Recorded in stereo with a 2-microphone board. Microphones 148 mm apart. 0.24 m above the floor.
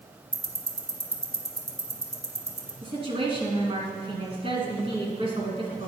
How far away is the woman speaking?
About 2.0 m.